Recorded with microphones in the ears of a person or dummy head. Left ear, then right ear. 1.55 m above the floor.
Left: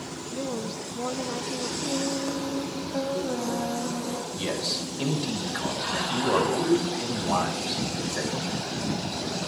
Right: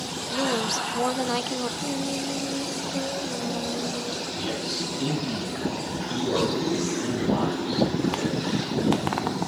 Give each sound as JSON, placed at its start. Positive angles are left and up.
{"t": 0.3, "sound": "a woman speaking", "side_deg": -50, "distance_m": 0.8}
{"t": 1.8, "sound": "singing", "side_deg": 55, "distance_m": 1.7}
{"t": 4.3, "sound": "a man speaking", "side_deg": 60, "distance_m": 4.0}